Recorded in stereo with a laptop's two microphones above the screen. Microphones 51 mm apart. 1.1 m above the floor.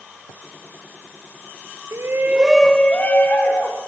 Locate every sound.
1.9 s a shout: 60° right (ahead or behind), 0.6 m; by 3.8 s 50° left (ahead or behind), 1.3 m